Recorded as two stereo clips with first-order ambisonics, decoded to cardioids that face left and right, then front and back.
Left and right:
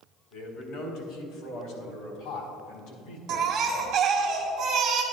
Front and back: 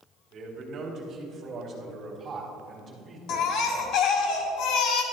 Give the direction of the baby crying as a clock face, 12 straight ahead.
1 o'clock.